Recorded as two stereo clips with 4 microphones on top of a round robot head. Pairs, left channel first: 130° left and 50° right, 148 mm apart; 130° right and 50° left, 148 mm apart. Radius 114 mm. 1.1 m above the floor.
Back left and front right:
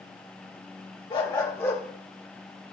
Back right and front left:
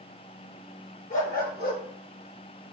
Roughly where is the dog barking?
Behind.